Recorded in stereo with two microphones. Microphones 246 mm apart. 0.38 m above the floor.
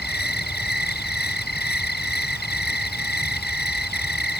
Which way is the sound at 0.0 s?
40° left (ahead or behind).